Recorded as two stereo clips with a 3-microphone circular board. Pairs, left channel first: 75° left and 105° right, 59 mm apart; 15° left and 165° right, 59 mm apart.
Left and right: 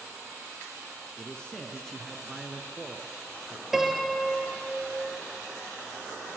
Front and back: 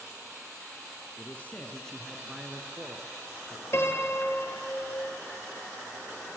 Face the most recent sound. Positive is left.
turn(degrees=-20)